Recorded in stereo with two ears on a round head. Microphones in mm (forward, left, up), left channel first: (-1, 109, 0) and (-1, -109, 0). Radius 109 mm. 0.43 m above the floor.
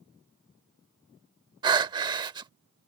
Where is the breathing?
20° right (ahead or behind).